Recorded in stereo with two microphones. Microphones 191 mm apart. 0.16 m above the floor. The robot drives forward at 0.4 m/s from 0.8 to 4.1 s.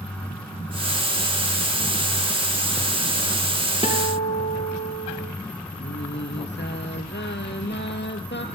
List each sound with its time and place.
3.8 s a guitar: 30° left (ahead or behind), 4.5 m; by 5.3 s 35° left (ahead or behind), 4 m
5.8 s singing: 70° left (ahead or behind), 1.7 m